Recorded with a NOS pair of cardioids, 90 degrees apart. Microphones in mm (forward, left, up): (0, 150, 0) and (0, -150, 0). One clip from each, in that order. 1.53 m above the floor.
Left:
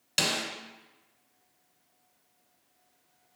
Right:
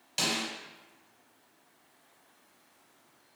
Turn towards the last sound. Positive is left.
turn(degrees=40)